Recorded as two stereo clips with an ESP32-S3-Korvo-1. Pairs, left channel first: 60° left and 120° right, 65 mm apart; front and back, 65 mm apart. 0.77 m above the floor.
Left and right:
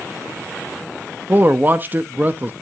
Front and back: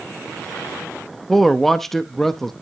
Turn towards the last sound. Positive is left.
turn(degrees=-85)